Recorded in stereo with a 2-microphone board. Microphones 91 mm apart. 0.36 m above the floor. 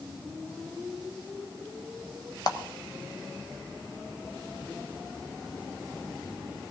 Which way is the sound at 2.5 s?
45° left (ahead or behind).